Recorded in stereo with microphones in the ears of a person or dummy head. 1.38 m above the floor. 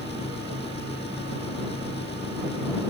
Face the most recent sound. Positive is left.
turn(degrees=30)  # may be behind; listen again after turning